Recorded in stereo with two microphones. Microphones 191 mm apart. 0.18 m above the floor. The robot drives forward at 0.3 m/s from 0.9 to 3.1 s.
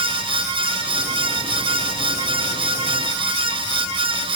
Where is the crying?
No crying in this recording.